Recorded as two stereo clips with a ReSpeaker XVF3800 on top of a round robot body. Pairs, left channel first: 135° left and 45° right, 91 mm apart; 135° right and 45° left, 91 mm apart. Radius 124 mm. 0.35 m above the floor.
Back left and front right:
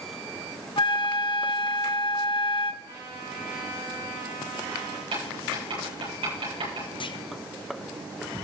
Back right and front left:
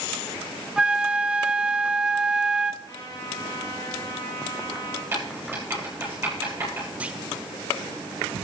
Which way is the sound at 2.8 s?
85° right.